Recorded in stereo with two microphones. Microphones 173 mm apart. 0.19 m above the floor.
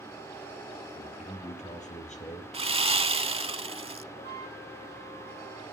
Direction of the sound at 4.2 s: 80° left.